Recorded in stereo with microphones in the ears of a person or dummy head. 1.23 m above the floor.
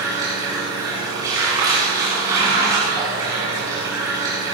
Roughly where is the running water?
Centre.